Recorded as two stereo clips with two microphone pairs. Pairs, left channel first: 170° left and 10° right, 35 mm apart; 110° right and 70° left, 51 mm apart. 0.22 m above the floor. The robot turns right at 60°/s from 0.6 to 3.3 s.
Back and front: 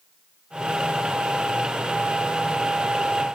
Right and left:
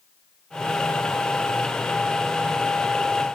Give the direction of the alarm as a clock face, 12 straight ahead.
No alarm in this recording.